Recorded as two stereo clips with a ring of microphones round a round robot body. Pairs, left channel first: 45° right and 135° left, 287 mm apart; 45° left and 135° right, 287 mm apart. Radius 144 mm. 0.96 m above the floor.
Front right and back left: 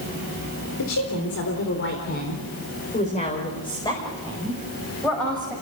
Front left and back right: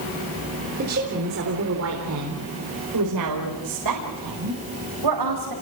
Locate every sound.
0.8 s a woman speaking: 75° right, 4 m; by 5.5 s 135° right, 6.5 m